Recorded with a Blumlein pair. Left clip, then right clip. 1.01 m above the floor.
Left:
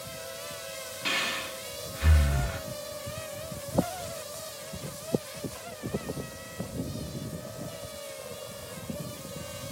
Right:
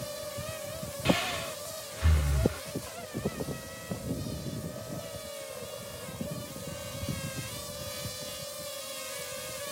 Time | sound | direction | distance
1.1 | breathing | 10° left | 1.0 m